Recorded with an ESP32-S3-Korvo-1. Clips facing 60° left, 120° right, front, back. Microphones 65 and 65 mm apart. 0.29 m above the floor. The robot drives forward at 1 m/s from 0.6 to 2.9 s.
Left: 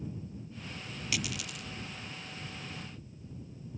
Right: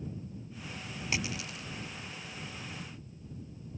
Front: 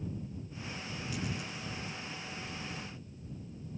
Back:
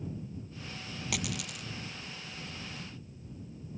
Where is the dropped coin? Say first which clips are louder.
Right 1 dB, back 2 dB; straight behind.